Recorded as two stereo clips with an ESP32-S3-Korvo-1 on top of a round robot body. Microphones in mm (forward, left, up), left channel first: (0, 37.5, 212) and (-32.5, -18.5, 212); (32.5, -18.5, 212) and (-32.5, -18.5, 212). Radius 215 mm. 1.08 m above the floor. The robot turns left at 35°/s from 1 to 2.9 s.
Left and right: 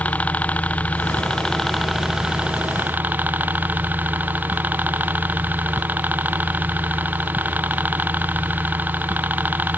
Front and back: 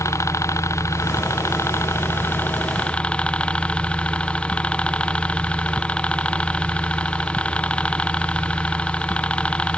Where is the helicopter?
Straight ahead; by 9.8 s 65° right.